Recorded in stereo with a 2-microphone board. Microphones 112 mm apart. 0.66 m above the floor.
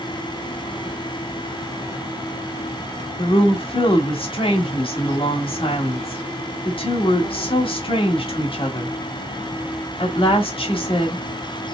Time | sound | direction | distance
3.2 | a woman speaking | 50° left (ahead or behind) | 1.2 m